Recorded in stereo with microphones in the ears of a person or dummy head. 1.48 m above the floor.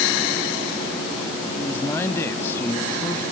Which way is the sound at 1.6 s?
20° left (ahead or behind).